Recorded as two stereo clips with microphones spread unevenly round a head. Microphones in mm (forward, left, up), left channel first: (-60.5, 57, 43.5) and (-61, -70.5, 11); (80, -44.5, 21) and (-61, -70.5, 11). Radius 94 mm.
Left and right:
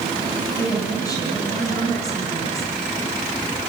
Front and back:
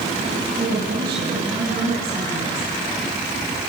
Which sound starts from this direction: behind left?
A woman speaking, at 0.6 s.